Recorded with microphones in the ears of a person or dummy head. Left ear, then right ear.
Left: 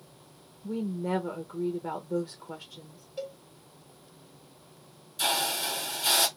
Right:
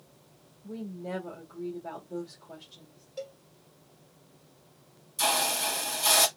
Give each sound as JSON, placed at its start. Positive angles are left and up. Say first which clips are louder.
{"t": 0.6, "sound": "a woman speaking", "louder": "left 6 dB", "side_deg": 50, "distance_m": 1.4}
{"t": 3.2, "sound": "a cowbell", "louder": "left 2 dB", "side_deg": -5, "distance_m": 1.7}
{"t": 5.2, "sound": "a hiss", "louder": "right 1 dB", "side_deg": -35, "distance_m": 1.5}